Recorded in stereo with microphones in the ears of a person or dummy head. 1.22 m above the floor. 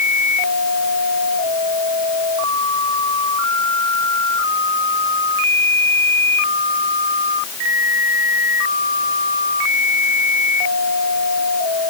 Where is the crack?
No crack in this recording.